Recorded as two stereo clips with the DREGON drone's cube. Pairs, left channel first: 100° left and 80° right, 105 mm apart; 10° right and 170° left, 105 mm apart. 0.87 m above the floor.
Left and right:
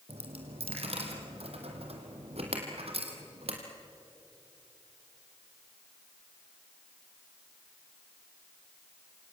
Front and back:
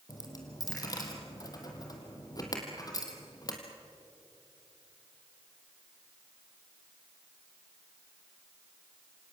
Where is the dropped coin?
65° right, 3 m.